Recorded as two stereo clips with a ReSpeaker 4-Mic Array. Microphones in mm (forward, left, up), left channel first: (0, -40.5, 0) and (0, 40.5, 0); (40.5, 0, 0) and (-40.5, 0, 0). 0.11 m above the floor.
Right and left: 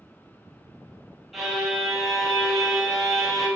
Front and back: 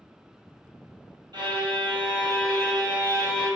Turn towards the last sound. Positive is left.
turn(degrees=175)